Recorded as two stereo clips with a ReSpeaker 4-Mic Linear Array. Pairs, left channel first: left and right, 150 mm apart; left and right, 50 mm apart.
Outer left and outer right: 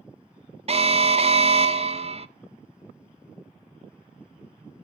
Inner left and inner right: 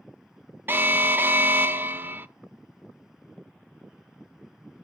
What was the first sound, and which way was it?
An alarm, 40° right (ahead or behind).